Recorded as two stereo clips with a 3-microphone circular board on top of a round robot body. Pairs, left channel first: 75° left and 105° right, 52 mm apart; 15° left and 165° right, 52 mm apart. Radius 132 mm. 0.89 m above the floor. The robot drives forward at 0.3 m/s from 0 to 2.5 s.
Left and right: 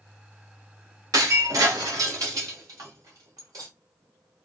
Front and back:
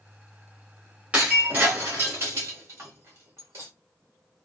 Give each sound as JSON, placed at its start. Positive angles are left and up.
{"t": 1.1, "sound": "breaking glass", "azimuth_deg": -100, "distance_m": 0.9}